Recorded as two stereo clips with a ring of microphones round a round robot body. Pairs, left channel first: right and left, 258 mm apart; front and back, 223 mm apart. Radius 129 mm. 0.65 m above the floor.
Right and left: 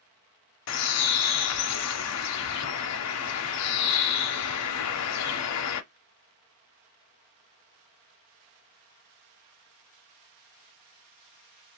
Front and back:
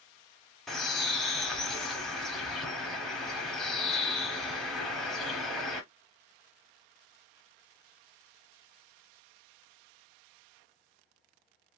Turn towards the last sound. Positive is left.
turn(degrees=-90)